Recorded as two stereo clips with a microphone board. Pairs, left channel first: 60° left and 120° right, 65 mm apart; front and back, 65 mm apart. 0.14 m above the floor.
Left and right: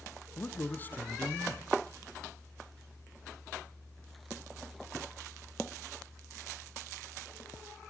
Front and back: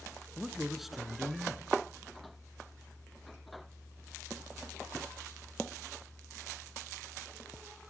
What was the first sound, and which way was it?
A man speaking, 95° left.